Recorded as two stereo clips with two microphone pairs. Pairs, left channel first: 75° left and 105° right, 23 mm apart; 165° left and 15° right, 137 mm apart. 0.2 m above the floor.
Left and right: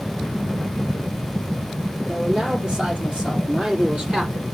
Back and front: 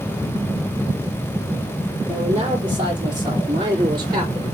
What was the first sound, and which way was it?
A man speaking, 70° right.